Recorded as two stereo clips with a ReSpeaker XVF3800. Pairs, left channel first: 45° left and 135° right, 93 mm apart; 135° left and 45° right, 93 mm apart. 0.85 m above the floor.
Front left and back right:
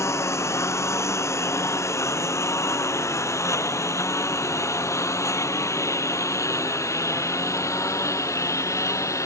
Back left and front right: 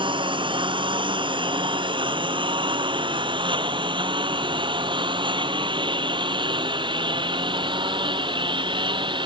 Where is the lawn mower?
15° right.